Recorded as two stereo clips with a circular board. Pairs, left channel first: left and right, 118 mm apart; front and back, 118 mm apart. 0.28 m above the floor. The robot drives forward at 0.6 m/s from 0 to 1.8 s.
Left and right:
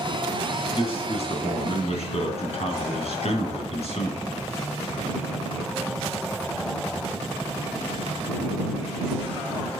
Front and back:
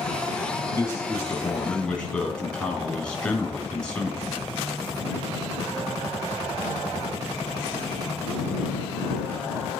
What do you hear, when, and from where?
0.7 s a man speaking: 65° left, 2.5 m; by 4.5 s 85° left, 2 m